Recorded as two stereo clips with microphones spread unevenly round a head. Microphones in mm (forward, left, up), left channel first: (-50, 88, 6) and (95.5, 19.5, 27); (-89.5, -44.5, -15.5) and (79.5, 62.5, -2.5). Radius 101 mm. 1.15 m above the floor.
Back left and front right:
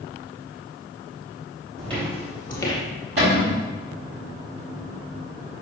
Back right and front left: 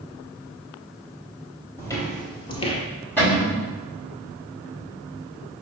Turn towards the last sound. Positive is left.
turn(degrees=-65)